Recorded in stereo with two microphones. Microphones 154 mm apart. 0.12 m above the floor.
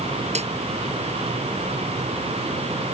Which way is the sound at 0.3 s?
50° right (ahead or behind).